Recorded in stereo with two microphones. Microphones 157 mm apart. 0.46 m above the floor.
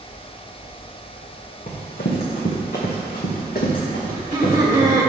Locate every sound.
1.7 s running footsteps: 60° left (ahead or behind), 1.8 m; by 5.1 s 55° left (ahead or behind), 3 m
4.1 s laughter: 25° right (ahead or behind), 1.3 m